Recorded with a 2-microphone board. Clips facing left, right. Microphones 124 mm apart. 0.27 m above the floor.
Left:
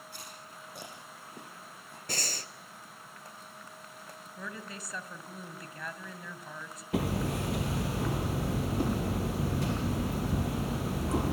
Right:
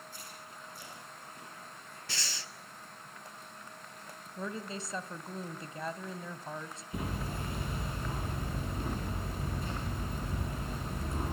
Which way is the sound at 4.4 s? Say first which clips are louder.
Right 5 dB; 25° right (ahead or behind).